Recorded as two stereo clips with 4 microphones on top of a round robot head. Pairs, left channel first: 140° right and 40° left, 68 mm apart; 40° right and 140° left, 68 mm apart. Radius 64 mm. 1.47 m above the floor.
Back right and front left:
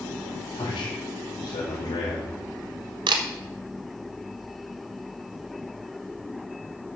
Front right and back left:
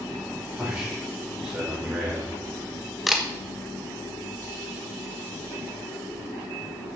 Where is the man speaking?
145° right, 3.5 m.